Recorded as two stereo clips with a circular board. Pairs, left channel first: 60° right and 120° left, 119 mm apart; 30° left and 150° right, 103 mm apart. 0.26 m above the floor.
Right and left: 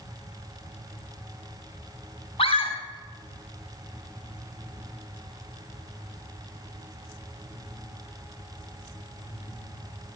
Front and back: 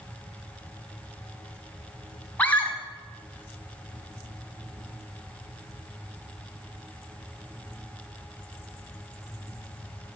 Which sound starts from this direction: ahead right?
A scream, at 2.4 s.